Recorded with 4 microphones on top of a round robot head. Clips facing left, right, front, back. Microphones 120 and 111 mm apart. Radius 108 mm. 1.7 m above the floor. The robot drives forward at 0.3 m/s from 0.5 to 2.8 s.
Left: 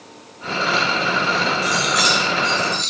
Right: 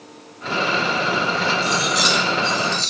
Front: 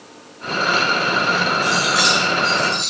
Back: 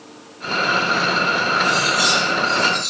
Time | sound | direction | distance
1.6 | cutlery clinking | 30° right | 1.6 m